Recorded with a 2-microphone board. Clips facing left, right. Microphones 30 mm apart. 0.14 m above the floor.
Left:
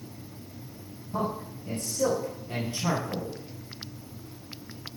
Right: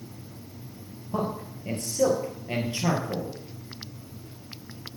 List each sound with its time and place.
1.1 s a man speaking: 50° right (ahead or behind), 3.5 m